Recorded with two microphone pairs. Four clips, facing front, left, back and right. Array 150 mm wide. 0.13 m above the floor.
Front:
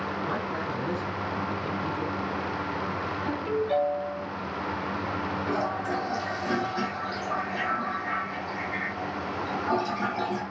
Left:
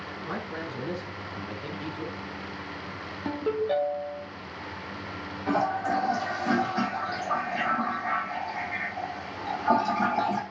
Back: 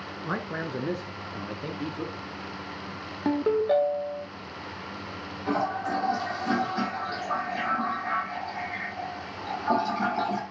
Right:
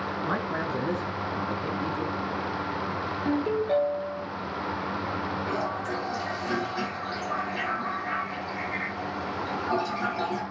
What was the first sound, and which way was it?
A man speaking, 135° right.